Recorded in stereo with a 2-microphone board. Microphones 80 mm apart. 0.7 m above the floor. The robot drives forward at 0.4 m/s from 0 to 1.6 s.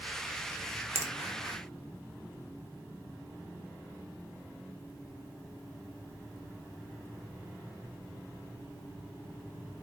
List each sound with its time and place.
0.9 s a finger snap: 35° right (ahead or behind), 0.6 m; by 1.1 s 40° right (ahead or behind), 0.5 m